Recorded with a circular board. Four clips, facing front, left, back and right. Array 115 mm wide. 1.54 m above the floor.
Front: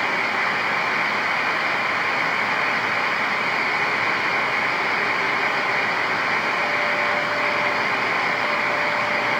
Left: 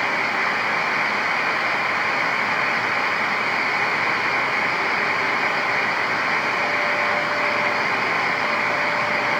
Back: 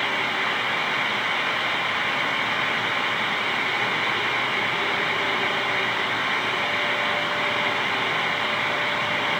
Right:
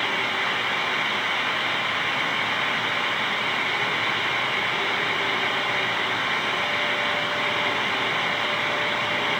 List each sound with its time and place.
Only background noise.